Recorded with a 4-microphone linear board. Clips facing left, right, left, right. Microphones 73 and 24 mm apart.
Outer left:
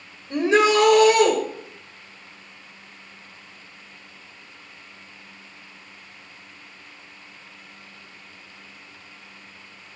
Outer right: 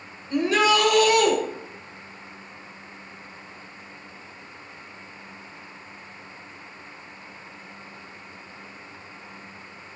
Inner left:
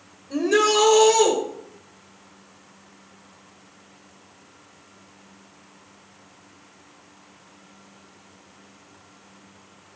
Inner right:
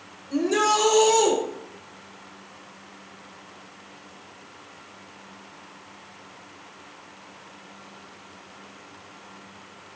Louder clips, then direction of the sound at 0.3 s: Outer left 3 dB, inner left 2 dB; 25° left (ahead or behind).